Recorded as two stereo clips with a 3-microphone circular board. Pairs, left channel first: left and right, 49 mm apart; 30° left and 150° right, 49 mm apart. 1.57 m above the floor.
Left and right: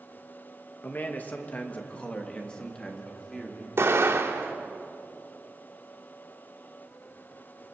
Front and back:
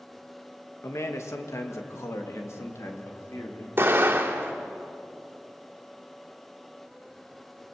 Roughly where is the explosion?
Behind right.